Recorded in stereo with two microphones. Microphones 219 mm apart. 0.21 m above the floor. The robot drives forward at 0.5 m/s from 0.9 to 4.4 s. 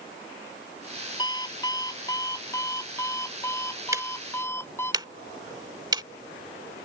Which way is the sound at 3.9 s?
15° right (ahead or behind).